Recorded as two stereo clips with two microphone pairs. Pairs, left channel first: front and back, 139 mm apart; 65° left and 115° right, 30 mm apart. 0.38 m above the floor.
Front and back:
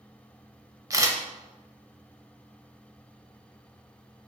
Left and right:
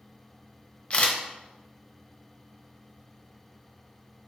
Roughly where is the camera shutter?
Behind left.